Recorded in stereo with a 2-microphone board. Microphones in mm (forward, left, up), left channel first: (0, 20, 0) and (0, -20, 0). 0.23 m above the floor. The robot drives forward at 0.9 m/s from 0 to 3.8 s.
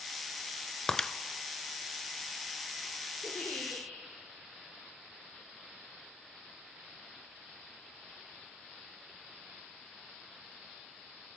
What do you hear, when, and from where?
0.9 s breaking glass: 15° left (ahead or behind), 0.9 m
3.2 s a giggle: 70° left (ahead or behind), 6 m